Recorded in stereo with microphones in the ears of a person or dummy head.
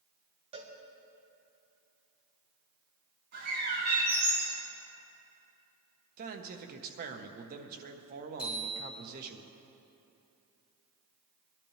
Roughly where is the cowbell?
Right.